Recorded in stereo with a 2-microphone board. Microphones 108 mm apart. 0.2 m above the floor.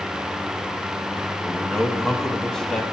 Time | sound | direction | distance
1.4 | a man speaking | 5° left (ahead or behind) | 1.0 m